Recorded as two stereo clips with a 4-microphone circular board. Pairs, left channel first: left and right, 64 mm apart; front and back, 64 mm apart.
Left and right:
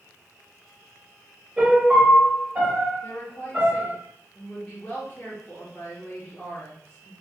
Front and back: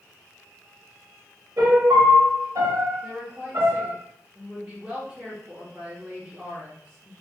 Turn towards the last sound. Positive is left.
turn(degrees=125)